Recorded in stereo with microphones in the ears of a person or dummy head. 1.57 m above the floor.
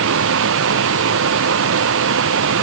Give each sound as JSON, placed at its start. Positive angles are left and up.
{"t": 0.0, "sound": "a machine running", "side_deg": -75}